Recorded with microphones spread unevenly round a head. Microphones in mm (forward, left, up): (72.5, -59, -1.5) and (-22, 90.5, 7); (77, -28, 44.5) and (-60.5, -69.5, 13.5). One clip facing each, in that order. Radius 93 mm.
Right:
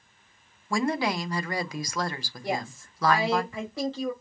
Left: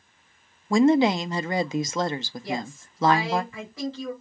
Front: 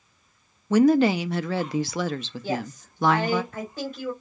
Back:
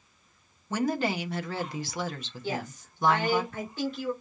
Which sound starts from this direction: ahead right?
A woman speaking, at 2.4 s.